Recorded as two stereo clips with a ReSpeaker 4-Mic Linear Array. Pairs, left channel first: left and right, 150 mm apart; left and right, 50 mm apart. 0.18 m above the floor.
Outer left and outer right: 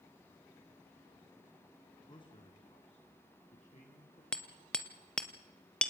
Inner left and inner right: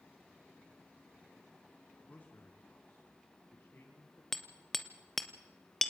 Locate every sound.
2.1 s a man speaking: 30° left (ahead or behind), 1.8 m; by 4.2 s 50° left (ahead or behind), 4.5 m
4.3 s hammering: 5° left (ahead or behind), 1.2 m